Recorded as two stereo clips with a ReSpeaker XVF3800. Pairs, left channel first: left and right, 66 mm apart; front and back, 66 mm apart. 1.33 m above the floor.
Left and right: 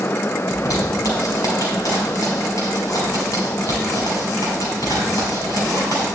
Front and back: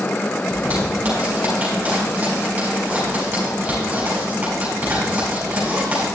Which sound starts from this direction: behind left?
A zipper, at 0.5 s.